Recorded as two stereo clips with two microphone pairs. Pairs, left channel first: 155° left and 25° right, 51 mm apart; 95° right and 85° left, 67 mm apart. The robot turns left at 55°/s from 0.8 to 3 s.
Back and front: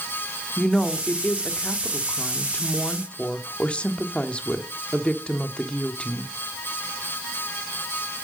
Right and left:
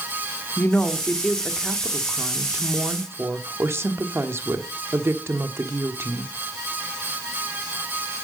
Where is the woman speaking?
135° right, 1.2 m; by 6.3 s 100° left, 1.2 m.